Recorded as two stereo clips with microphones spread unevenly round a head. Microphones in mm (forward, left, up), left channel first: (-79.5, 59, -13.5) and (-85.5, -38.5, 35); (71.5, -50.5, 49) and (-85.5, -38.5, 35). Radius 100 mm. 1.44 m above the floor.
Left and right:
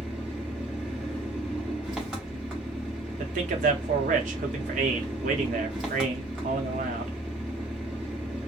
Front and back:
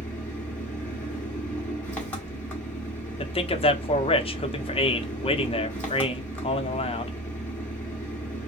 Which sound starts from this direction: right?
An engine running, at 0.0 s.